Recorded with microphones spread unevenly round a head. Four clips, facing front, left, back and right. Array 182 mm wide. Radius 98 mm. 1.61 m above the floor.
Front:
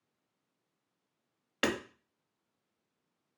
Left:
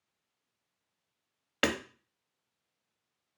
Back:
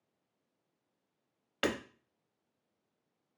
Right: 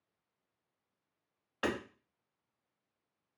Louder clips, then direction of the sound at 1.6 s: Left 4 dB, front 1 dB; 75° left.